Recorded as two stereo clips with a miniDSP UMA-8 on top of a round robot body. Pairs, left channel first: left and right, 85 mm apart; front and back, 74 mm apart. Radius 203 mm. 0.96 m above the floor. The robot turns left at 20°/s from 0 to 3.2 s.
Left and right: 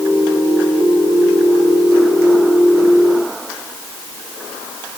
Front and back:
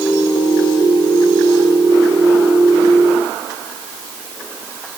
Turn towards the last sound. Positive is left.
No sound to turn to.